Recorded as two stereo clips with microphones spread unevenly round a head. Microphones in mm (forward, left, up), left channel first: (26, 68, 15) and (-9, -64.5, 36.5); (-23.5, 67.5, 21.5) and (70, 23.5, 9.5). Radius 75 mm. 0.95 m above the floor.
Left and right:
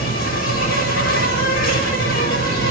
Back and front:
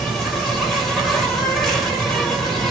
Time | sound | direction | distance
0.0 | an insect | 70° left | 6 m